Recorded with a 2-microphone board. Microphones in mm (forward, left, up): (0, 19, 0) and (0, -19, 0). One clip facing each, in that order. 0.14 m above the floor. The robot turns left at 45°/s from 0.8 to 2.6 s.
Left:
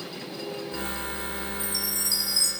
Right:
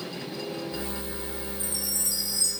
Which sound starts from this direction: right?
A chime, at 1.6 s.